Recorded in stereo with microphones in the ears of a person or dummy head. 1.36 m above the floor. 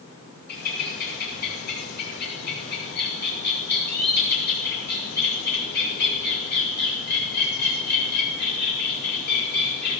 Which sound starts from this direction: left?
A bird, at 0.5 s.